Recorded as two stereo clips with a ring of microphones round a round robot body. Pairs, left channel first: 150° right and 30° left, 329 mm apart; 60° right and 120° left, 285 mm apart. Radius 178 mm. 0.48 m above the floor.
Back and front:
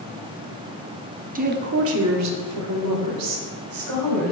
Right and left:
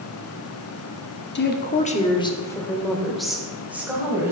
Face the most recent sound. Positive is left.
turn(degrees=40)